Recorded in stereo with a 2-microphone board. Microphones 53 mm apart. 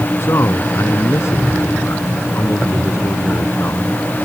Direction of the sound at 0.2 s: 65° left (ahead or behind).